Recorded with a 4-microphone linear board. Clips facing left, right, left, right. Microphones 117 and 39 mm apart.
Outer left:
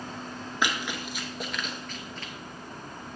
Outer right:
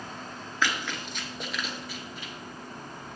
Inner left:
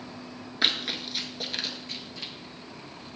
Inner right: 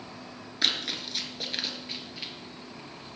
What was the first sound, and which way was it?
Running footsteps, 20° left (ahead or behind).